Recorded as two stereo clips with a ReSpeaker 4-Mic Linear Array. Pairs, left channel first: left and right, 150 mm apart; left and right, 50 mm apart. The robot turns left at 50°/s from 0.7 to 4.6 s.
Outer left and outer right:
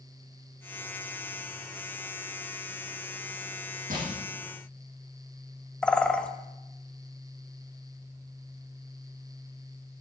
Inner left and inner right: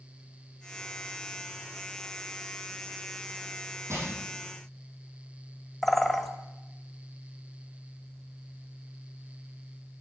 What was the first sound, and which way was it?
Crushing, 65° right (ahead or behind).